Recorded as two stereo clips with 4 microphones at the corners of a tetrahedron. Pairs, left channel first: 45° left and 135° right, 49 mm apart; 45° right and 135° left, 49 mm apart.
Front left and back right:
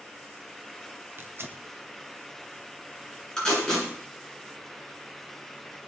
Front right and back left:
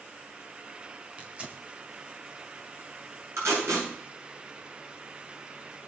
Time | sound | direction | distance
1.2 | tearing paper | 165° right | 1.5 m
3.4 | tape being pulled | 120° left | 9.5 m